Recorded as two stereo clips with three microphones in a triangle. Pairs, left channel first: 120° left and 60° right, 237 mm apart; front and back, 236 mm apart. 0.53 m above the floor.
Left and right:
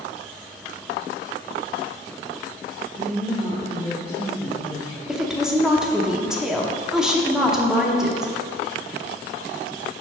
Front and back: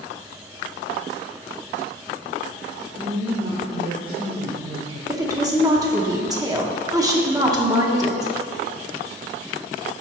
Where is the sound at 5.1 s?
145° right, 0.9 m.